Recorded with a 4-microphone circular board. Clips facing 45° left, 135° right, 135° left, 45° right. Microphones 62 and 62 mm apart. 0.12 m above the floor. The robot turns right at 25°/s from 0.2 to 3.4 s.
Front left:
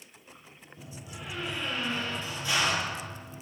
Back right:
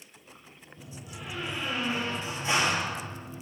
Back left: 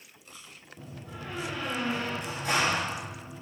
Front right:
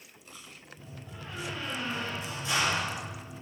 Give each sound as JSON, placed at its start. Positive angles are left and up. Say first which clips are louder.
{"t": 0.8, "sound": "a door slam", "louder": "even, back left 5 dB", "azimuth_deg": 120, "distance_m": 2.5}